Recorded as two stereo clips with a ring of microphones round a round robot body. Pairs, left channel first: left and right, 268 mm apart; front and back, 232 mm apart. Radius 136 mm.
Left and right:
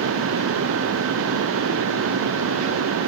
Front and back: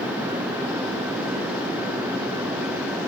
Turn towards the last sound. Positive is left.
No sound to turn to.